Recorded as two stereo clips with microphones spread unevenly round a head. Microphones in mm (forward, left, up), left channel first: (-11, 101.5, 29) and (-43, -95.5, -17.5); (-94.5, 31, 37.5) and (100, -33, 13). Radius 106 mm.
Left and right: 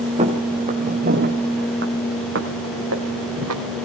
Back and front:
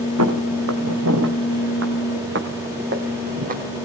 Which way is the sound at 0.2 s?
30° right.